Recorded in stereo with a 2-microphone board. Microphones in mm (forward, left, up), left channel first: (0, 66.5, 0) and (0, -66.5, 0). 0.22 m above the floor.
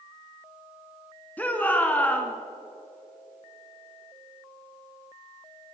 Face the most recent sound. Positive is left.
turn(degrees=10)  # may be behind; listen again after turning